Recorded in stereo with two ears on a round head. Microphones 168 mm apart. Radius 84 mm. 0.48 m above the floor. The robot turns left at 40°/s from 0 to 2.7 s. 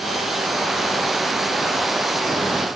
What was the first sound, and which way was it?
Only background noise.